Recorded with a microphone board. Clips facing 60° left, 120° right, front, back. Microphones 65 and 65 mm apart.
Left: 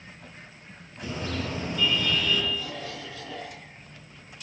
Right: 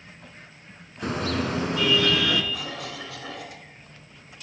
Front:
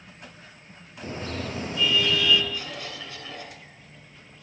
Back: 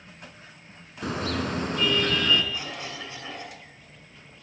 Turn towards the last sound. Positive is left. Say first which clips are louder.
# right 1 dB, back 1 dB
turn(degrees=-115)